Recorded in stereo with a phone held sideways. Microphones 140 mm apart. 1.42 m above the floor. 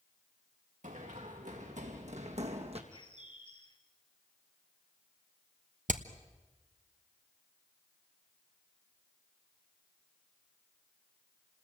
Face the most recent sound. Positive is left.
turn(degrees=-75)  # may be behind; listen again after turning